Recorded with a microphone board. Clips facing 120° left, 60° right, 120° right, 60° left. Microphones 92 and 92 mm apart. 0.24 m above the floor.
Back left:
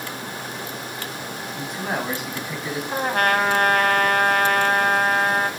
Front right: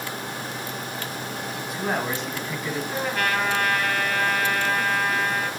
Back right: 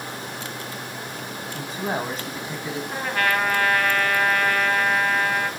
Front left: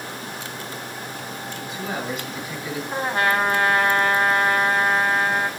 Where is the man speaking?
140° right, 2.0 m; by 2.8 s 170° right, 2.5 m.